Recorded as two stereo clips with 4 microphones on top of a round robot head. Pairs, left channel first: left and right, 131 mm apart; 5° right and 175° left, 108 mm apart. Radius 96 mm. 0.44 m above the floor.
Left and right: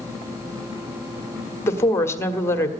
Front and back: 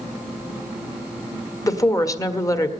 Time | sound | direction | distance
1.6 | a woman speaking | 30° left | 1.3 m